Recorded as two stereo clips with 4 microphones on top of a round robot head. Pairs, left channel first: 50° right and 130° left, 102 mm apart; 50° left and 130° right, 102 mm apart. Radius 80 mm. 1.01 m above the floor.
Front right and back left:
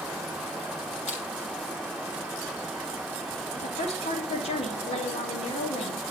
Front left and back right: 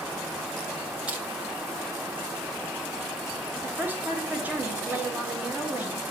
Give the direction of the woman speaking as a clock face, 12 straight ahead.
2 o'clock.